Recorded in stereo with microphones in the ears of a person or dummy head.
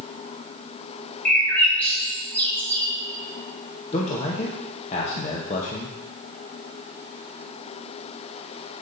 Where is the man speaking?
40° left (ahead or behind), 0.9 m.